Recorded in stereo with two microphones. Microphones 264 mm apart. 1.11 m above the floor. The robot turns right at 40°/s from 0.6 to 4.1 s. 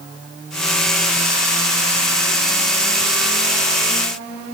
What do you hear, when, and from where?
Only background noise.